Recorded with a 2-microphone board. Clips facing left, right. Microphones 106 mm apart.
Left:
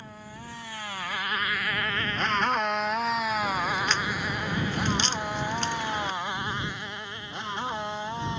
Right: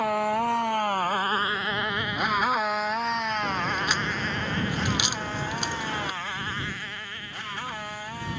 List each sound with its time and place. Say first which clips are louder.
0.0 s a motorcycle: right 19 dB; 80° right; by 8.4 s 20° left (ahead or behind)
3.4 s a crack: even; 10° right (ahead or behind)